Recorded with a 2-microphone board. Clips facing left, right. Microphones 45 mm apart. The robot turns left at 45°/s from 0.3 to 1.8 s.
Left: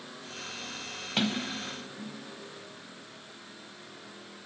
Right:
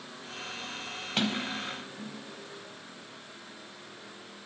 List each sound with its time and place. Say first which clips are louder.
1.2 s a sliding door: even; 5° left (ahead or behind), 1.4 m; by 2.2 s 15° right (ahead or behind), 1.4 m